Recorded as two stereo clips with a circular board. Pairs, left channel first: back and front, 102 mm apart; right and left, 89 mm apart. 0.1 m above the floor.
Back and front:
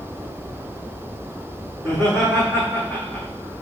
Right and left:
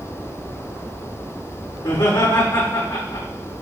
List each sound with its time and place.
1.8 s laughter: 105° right, 4.5 m